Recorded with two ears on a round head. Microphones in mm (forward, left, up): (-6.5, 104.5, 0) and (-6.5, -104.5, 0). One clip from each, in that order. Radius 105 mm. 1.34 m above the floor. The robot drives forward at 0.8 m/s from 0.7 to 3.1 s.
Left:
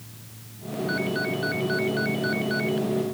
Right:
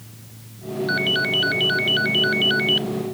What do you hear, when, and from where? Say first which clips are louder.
0.9 s a ringtone: right 8 dB; 75° right (ahead or behind); by 2.9 s 80° right